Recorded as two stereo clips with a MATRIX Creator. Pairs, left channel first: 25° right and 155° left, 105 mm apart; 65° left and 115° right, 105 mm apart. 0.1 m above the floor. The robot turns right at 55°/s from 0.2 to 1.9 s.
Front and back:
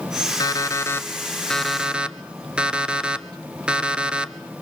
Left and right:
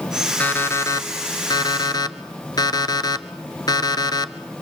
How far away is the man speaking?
No man speaking in this recording.